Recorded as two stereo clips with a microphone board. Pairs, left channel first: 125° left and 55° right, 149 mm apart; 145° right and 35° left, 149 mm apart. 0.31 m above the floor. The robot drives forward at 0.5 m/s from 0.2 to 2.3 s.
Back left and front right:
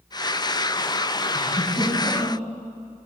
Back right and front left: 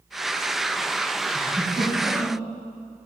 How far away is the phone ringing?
No phone ringing in this recording.